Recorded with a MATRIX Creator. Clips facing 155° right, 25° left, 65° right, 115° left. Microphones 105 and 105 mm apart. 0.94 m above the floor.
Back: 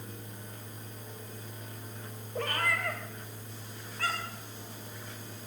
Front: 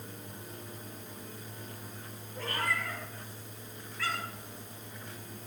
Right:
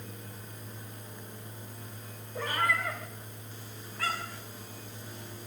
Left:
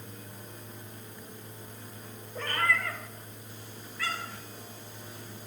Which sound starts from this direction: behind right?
A cat meowing, at 2.4 s.